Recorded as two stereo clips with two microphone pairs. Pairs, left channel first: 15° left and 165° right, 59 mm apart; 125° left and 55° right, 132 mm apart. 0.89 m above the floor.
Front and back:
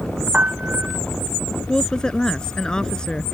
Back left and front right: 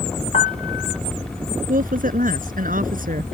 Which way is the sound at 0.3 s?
135° left.